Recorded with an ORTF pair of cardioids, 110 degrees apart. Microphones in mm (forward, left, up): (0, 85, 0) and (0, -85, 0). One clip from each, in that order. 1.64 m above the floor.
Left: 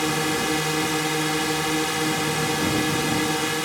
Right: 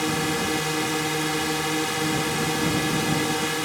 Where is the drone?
15° left; by 3.6 s 10° left.